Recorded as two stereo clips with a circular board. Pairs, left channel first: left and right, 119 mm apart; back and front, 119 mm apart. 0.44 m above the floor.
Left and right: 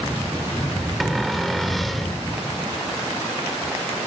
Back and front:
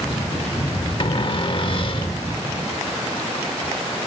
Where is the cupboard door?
Straight behind.